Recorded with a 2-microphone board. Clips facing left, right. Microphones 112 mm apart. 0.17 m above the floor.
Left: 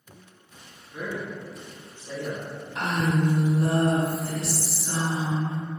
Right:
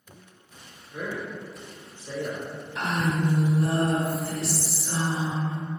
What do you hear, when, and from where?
0.9 s a man speaking: 15° left (ahead or behind), 1.1 m
2.8 s a woman speaking: 25° left (ahead or behind), 1.7 m